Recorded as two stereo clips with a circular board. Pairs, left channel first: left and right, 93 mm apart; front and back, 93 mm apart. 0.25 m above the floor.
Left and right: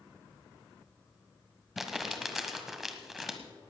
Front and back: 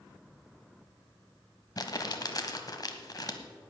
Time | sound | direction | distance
1.8 | crumpling | 5° right | 1.2 m